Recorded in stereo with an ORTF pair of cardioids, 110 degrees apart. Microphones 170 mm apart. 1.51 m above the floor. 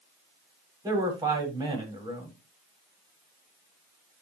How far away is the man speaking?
About 5.5 m.